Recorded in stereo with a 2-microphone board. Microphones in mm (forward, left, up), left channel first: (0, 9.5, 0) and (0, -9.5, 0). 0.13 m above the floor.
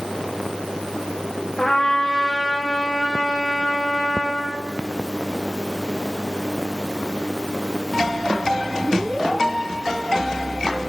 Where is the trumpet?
55° left (ahead or behind), 7 m.